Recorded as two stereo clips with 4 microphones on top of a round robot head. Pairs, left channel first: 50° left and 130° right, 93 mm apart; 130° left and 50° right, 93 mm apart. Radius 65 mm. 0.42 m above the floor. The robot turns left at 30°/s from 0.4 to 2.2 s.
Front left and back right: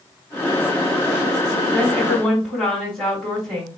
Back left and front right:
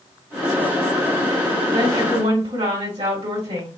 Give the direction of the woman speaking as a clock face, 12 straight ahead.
1 o'clock.